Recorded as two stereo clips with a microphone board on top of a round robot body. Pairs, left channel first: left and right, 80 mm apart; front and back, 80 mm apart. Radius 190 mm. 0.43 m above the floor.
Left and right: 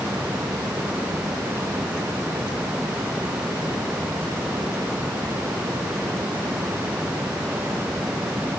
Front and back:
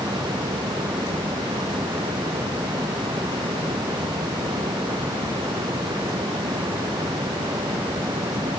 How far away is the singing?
I don't hear singing.